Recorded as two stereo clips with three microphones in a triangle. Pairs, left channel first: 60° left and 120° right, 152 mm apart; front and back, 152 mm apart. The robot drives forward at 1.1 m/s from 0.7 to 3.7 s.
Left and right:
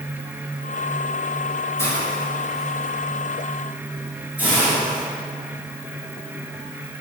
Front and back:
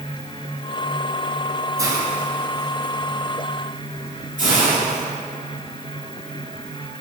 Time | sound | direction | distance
1.8 | a hiss | 125° left | 1.6 m